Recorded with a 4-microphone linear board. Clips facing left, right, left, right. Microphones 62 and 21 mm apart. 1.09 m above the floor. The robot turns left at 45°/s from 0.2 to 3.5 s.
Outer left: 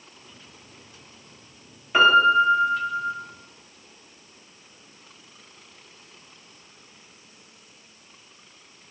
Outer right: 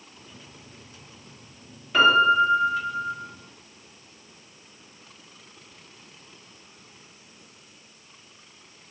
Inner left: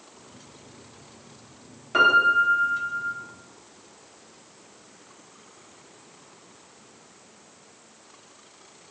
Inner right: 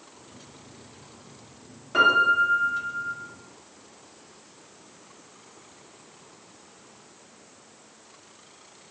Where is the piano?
15° left (ahead or behind), 0.6 m; by 3.1 s 25° left (ahead or behind), 0.6 m.